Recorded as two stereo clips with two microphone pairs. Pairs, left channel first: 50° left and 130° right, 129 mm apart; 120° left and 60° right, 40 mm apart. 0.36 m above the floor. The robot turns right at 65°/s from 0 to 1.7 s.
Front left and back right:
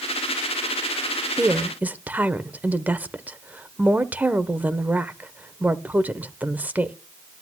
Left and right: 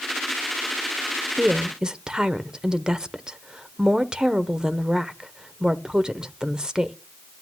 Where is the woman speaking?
95° right, 0.9 m; by 7.0 s 75° right, 0.9 m.